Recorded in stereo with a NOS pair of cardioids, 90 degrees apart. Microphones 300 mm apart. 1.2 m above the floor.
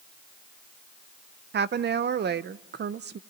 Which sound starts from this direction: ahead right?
A woman speaking, at 1.5 s.